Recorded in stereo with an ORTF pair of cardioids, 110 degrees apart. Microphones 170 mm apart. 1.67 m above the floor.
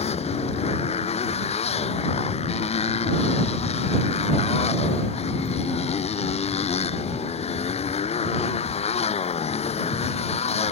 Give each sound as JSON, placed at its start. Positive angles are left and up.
{"t": 0.0, "sound": "a motorcycle", "azimuth_deg": 40}